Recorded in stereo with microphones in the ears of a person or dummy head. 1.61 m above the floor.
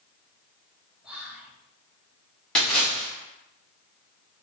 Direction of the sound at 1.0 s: Centre (ahead or behind).